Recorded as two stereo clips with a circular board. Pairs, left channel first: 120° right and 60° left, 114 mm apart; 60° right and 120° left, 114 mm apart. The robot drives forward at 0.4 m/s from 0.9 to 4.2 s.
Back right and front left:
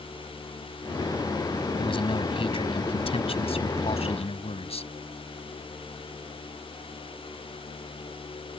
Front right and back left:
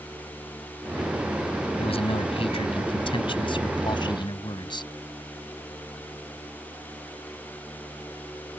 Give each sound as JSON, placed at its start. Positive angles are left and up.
{"t": 1.8, "sound": "a man speaking", "azimuth_deg": -85}